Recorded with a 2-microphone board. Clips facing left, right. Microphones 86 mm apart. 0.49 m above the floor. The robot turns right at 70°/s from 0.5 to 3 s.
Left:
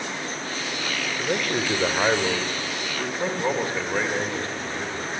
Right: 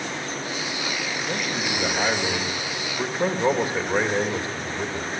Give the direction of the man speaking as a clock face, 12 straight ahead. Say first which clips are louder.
Left 5 dB; 9 o'clock.